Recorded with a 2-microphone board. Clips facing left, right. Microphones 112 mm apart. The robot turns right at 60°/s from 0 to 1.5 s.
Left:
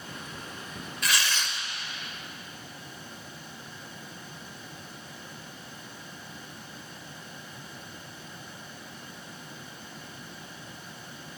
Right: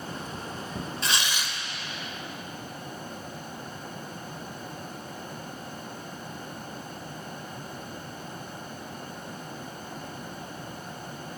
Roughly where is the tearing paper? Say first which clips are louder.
Left 2 dB; right.